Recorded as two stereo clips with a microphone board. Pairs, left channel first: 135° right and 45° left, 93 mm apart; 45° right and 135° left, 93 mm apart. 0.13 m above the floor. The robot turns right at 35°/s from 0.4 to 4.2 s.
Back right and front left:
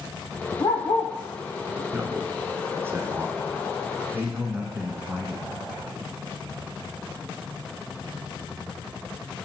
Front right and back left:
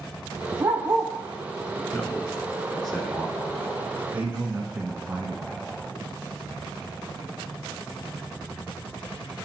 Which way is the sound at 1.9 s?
5° left.